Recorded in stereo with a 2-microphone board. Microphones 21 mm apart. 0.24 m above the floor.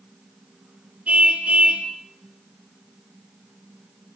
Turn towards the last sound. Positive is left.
turn(degrees=-75)  # may be behind; listen again after turning